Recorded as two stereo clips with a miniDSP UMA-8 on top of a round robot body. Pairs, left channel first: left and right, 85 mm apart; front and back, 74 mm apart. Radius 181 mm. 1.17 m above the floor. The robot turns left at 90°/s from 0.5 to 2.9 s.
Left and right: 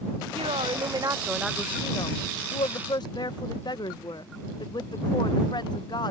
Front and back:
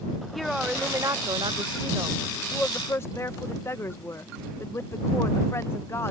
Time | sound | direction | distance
0.3 | a woman speaking | 90° right | ?